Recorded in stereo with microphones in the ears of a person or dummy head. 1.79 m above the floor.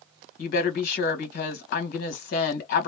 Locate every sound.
0.4 s a woman speaking: 60° left (ahead or behind), 1.4 m